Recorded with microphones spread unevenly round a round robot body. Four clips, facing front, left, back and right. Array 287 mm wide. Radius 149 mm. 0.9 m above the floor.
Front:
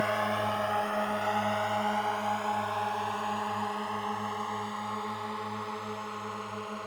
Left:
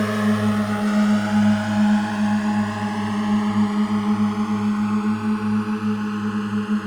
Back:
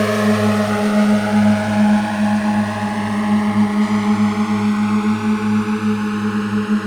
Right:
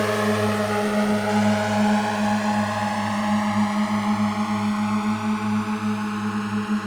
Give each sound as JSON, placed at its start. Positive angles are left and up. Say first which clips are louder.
{"t": 0.0, "sound": "a drone", "louder": "left 1 dB, back 13 dB", "azimuth_deg": 155}